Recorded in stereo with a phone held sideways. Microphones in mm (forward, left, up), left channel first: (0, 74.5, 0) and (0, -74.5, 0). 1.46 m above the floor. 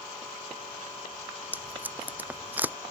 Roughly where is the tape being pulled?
Centre.